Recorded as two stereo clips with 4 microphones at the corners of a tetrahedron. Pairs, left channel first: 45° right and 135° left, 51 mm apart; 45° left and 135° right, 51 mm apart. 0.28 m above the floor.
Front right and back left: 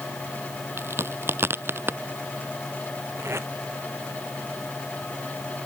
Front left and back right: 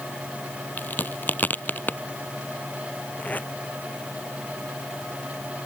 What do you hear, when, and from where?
0.8 s a crack: 95° left
3.2 s tape being pulled: 100° left